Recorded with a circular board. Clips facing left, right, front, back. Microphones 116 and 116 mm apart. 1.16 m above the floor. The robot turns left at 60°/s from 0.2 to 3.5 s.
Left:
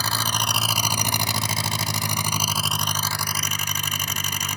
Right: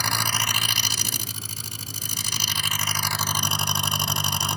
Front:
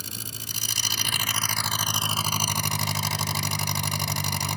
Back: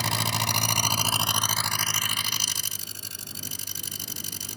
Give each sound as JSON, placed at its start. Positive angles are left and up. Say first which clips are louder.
{"t": 0.0, "sound": "an engine running", "louder": "left 2 dB, back 14 dB", "azimuth_deg": 175}